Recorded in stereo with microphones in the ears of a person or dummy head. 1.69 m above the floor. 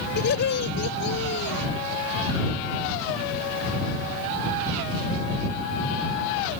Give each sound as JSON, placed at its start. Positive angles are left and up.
{"t": 0.2, "sound": "laughter", "side_deg": 65}